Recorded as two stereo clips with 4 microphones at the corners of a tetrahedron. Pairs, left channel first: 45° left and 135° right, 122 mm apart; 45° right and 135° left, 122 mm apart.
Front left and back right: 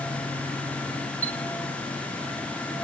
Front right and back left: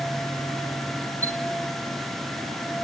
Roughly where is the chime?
Left.